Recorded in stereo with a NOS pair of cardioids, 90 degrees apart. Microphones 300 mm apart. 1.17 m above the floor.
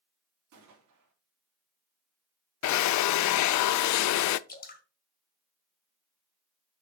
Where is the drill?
65° left, 0.5 m.